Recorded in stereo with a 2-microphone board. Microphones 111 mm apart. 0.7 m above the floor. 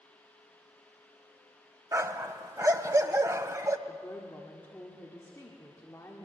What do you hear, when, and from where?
1.9 s a dog barking: 30° right (ahead or behind), 0.9 m
3.9 s a woman speaking: 20° left (ahead or behind), 1.9 m